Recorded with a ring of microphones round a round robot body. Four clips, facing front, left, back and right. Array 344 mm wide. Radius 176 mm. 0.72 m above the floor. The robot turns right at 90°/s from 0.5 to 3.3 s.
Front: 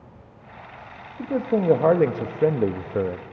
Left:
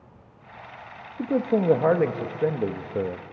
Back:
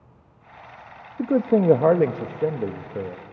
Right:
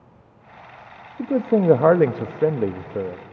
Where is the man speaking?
165° right, 0.6 m; by 3.2 s 15° left, 0.6 m.